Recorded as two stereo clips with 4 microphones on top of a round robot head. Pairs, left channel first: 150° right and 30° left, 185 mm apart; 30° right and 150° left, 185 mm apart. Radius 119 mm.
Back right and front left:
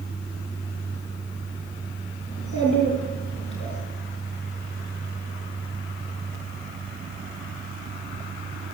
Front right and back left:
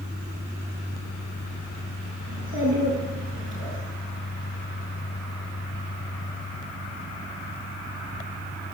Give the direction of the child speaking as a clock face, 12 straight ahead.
7 o'clock.